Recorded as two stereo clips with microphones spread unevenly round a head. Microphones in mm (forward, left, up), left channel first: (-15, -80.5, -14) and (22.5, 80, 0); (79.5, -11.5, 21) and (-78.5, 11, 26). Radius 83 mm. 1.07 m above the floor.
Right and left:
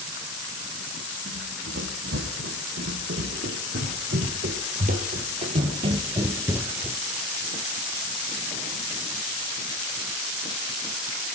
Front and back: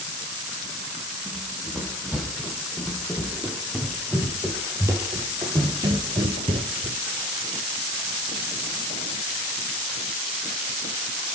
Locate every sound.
1.3 s running footsteps: 80° left, 3.5 m; by 7.0 s 160° left, 1.3 m